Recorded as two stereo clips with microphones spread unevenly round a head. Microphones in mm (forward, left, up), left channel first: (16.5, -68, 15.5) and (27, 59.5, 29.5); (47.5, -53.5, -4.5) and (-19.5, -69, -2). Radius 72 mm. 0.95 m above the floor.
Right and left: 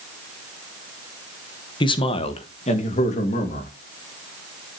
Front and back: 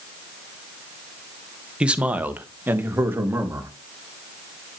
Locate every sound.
1.8 s a man speaking: 95° right, 1.1 m; by 3.7 s 115° right, 2.5 m